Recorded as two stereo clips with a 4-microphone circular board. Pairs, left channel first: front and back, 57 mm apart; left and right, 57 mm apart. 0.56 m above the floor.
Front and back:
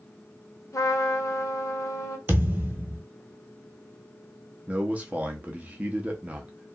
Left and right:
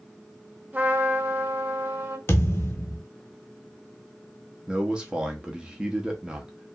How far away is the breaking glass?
I don't hear breaking glass.